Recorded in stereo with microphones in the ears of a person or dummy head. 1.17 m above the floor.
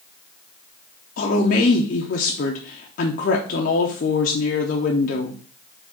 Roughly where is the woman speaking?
Left.